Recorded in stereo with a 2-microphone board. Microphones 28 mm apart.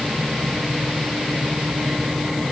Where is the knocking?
I don't hear knocking.